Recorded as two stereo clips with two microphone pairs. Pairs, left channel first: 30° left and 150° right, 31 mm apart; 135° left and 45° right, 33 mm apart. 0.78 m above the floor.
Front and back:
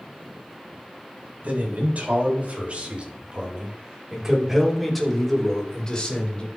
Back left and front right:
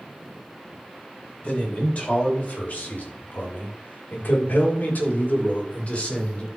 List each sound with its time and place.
1.4 s a man speaking: straight behind, 4.5 m; by 6.5 s 80° left, 3 m